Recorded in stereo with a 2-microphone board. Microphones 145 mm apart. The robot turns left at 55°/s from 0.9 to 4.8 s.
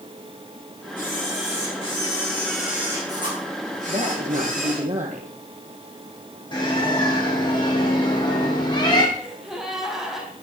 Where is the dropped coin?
No dropped coin in this recording.